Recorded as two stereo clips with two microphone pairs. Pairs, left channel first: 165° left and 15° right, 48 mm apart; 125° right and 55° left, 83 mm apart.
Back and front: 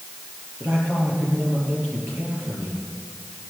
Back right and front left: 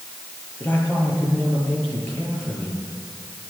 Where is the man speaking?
60° right, 8 m.